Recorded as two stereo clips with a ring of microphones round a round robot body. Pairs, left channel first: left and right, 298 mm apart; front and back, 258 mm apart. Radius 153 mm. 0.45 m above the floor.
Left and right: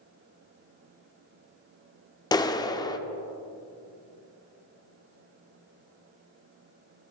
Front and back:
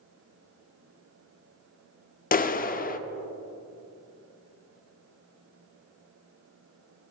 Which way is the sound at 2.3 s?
25° left.